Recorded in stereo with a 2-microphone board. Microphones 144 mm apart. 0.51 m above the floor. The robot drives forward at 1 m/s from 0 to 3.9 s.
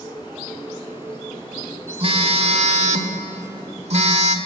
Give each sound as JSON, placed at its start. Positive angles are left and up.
{"t": 2.0, "sound": "a phone buzzing", "side_deg": -40, "distance_m": 2.0}